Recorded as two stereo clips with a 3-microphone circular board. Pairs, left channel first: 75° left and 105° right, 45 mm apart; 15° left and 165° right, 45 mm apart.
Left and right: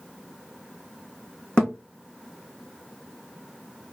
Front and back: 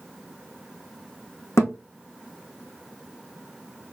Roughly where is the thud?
Ahead.